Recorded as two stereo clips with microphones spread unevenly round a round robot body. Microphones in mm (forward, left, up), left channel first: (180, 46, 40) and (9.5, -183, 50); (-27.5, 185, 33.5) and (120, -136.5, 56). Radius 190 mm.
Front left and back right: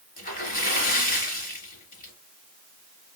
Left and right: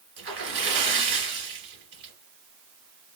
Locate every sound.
0.2 s a splash: 10° right, 2.5 m